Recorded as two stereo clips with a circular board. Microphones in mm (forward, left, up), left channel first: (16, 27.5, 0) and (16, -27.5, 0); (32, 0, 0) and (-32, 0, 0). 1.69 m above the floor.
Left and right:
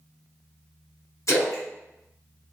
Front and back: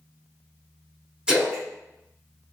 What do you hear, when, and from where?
1.3 s a splash: 105° left, 0.9 m